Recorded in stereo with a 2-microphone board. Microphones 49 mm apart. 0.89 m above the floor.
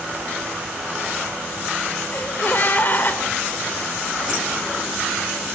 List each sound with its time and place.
2.1 s a gasp: 45° left (ahead or behind), 2.5 m